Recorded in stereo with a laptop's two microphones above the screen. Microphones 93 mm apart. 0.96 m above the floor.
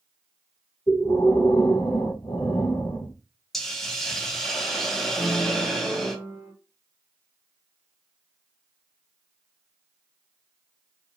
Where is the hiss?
5° left (ahead or behind), 0.5 m.